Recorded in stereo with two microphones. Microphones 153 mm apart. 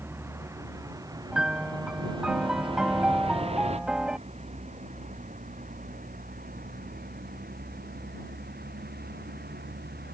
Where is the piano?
5° right (ahead or behind).